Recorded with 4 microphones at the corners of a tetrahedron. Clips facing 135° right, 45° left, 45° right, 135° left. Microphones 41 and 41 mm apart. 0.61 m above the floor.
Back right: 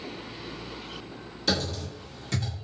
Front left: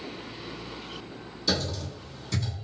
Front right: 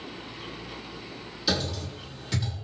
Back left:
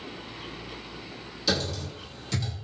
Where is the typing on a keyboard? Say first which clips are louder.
Back right 1 dB, even; 125° right, 1.4 m.